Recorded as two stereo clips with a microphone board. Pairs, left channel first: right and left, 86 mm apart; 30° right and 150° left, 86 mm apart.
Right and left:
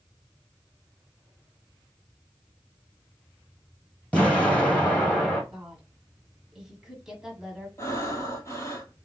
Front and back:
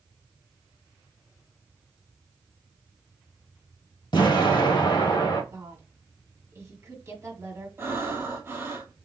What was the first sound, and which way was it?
An explosion, 15° right.